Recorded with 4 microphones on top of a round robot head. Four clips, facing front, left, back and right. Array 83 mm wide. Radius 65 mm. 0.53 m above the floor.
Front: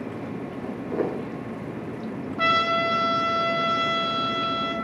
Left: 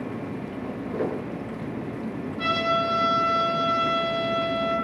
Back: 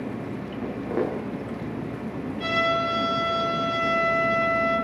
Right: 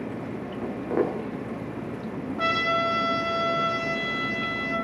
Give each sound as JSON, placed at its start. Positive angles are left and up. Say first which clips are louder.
{"t": 0.6, "sound": "footsteps", "louder": "right 4 dB, back 1 dB", "azimuth_deg": -120, "distance_m": 7.0}
{"t": 2.4, "sound": "a trumpet", "louder": "even, front 2 dB", "azimuth_deg": -30, "distance_m": 3.0}